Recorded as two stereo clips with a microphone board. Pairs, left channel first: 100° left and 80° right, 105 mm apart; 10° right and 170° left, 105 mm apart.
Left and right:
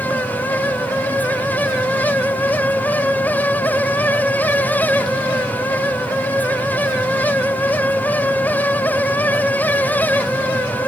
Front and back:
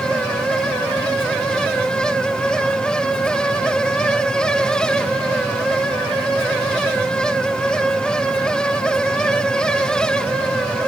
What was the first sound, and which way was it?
Only background noise.